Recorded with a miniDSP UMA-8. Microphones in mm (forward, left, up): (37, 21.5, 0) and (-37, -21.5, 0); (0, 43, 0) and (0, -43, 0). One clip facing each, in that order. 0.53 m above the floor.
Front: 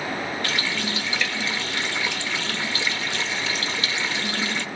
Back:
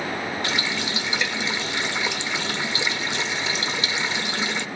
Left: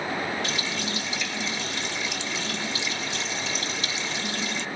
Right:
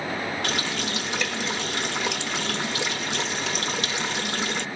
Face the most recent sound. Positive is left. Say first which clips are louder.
# even, right 2 dB
turn(degrees=-80)